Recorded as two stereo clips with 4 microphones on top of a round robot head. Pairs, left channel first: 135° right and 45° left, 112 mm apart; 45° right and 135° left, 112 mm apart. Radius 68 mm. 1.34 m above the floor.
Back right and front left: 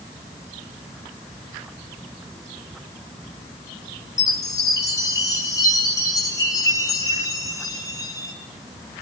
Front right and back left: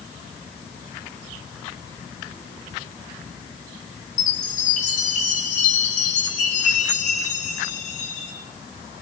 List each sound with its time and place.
4.2 s a chime: 75° right, 5 m